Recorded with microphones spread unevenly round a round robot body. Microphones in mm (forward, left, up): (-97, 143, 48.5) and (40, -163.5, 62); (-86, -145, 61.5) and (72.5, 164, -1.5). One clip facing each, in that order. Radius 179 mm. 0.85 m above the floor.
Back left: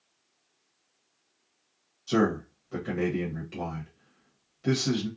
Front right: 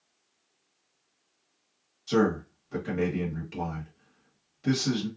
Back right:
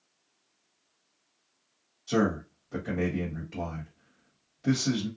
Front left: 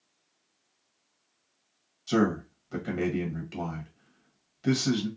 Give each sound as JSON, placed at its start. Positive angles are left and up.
{"t": 2.1, "sound": "a man speaking", "azimuth_deg": 15, "distance_m": 1.1}